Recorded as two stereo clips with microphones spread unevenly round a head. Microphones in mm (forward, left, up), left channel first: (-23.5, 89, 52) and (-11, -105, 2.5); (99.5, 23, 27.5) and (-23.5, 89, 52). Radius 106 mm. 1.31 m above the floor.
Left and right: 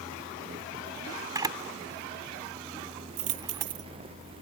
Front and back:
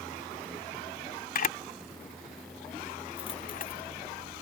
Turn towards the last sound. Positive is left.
turn(degrees=-100)